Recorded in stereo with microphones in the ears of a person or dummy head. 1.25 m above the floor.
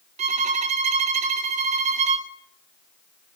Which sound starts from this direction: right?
A violin, at 0.2 s.